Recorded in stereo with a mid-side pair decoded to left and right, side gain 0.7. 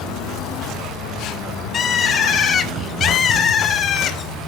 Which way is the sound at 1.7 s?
35° left.